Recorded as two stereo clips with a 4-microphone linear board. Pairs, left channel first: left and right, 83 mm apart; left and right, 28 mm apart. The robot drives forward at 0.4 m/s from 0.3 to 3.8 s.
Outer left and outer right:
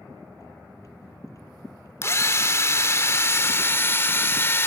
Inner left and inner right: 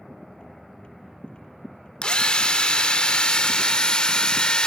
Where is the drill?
35° left (ahead or behind), 1.0 m; by 4.7 s 30° left (ahead or behind), 1.2 m.